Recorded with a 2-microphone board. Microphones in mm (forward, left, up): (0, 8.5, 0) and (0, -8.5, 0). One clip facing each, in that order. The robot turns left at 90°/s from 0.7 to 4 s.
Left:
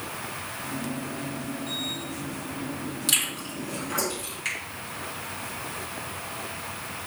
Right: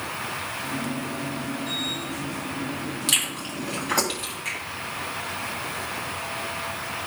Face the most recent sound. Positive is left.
turn(degrees=25)  # may be behind; listen again after turning